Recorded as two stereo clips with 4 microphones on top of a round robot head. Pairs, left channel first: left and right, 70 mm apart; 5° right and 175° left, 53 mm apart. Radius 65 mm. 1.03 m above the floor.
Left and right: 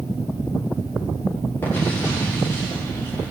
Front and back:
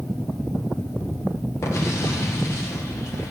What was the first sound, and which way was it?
An explosion, 25° left.